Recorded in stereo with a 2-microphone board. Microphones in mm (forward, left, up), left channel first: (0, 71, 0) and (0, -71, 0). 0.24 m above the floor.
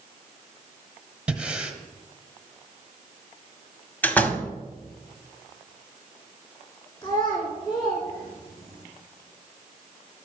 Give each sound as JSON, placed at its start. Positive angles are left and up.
{"t": 1.3, "sound": "breathing", "side_deg": -5, "distance_m": 1.2}
{"t": 4.0, "sound": "a door slam", "side_deg": 10, "distance_m": 1.0}
{"t": 7.0, "sound": "a child speaking", "side_deg": 30, "distance_m": 2.5}